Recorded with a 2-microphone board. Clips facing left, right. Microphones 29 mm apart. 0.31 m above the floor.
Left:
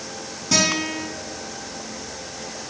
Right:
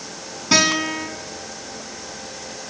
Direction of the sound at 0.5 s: 40° right (ahead or behind).